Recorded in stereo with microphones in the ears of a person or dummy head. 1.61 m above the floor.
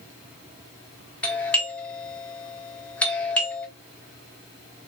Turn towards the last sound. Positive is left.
turn(degrees=10)  # may be behind; listen again after turning